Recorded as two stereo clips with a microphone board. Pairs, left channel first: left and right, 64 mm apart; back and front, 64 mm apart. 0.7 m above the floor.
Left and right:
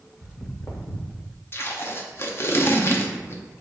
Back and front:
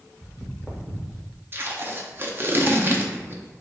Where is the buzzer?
No buzzer in this recording.